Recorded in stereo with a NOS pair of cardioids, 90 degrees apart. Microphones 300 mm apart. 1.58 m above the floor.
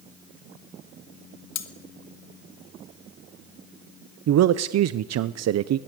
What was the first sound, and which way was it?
Cutlery clinking, 65° left.